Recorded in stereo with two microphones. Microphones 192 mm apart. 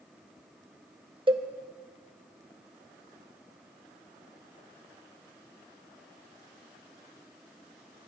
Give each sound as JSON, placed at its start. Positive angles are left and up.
{"t": 1.3, "sound": "a cowbell", "side_deg": -25, "distance_m": 0.5}